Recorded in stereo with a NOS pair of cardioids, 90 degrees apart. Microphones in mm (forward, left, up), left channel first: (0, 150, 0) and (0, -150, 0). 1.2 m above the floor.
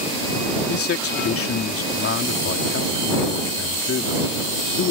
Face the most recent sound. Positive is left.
turn(degrees=50)